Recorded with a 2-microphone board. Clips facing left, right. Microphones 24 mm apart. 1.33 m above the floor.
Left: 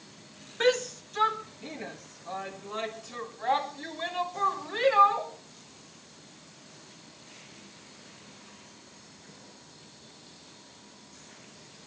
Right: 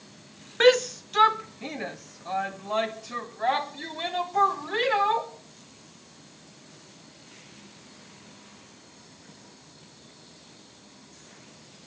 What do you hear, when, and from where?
0.6 s a shout: 25° right (ahead or behind), 0.7 m; by 5.3 s 60° right (ahead or behind), 5.5 m